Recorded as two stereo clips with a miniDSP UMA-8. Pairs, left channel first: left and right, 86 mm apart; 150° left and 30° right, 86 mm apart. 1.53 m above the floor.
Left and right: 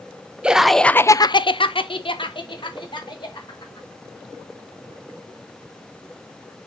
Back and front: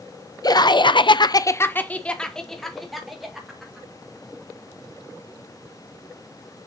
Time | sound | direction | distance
0.4 | laughter | 170° right | 0.8 m